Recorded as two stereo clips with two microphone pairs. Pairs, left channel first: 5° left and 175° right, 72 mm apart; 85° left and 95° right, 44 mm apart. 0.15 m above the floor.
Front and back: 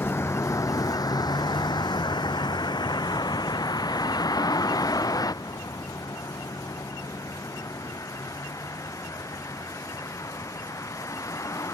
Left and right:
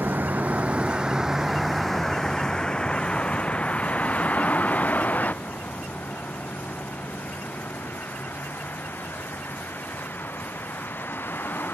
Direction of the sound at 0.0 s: 50° right.